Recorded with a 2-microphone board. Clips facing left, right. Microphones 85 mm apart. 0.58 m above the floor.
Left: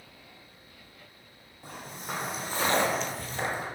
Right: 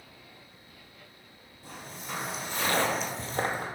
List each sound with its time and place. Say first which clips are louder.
1.6 s footsteps: left 2 dB; 55° left (ahead or behind), 1.9 m; by 3.7 s 55° right (ahead or behind), 1.0 m